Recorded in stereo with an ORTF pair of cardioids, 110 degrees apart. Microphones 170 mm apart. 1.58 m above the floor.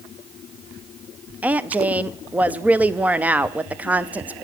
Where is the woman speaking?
10° right, 0.6 m.